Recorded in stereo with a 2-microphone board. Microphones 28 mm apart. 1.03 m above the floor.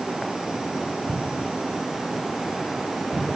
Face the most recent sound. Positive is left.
turn(degrees=0)  # may be behind; listen again after turning